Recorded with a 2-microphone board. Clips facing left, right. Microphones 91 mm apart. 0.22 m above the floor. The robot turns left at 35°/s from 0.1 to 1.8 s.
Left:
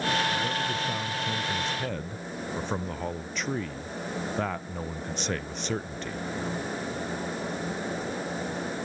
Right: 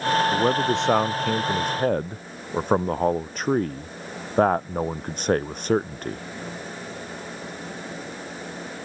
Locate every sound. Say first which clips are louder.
0.3 s a man speaking: right 8 dB; 80° right; by 6.2 s 135° right